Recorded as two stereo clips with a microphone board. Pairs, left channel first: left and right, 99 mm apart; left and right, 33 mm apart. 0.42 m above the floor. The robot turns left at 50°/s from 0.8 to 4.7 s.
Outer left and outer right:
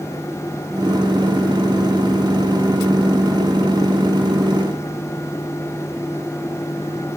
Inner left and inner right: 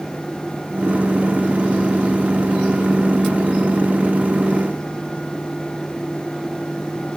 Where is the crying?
I don't hear crying.